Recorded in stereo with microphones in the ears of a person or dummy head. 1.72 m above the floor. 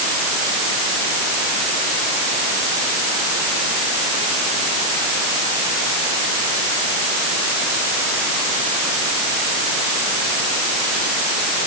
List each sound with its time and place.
Only background noise.